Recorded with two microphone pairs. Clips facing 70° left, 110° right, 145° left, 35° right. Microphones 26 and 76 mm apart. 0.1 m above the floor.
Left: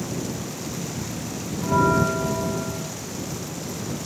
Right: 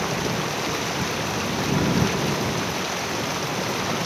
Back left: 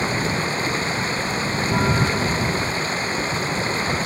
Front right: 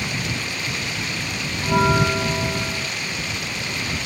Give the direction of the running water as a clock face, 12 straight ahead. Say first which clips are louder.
Right 5 dB, back left 5 dB; 5 o'clock.